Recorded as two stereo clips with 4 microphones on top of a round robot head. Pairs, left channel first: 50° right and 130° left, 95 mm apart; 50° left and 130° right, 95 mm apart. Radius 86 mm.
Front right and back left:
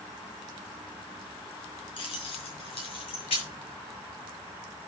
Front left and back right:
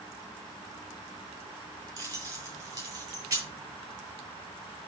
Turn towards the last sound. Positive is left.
turn(degrees=-75)